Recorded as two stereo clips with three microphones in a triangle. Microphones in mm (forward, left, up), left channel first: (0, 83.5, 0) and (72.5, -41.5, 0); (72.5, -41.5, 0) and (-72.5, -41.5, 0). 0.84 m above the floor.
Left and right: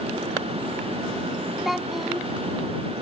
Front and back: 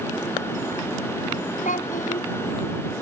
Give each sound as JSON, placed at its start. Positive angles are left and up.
{"t": 1.6, "sound": "a child speaking", "azimuth_deg": 30}